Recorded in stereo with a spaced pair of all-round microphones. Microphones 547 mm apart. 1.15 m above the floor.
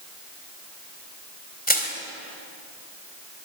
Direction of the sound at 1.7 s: 15° left (ahead or behind).